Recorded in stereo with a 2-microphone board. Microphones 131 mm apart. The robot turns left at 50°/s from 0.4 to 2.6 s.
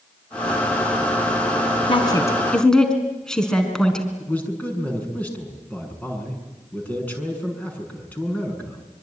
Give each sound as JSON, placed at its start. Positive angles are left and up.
{"t": 1.9, "sound": "a woman speaking", "side_deg": 40, "distance_m": 4.0}
{"t": 4.2, "sound": "a man speaking", "side_deg": 10, "distance_m": 6.5}